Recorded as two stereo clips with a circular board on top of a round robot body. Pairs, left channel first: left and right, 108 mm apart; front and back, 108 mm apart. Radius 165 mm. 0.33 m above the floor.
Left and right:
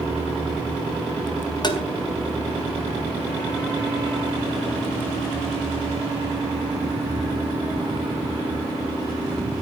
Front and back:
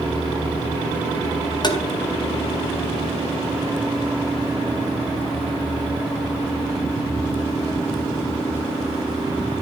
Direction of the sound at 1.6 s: 45° left.